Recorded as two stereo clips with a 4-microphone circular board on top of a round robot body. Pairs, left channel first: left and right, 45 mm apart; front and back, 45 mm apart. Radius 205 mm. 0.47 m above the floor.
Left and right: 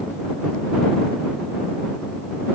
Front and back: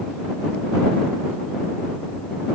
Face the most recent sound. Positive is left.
No sound to turn to.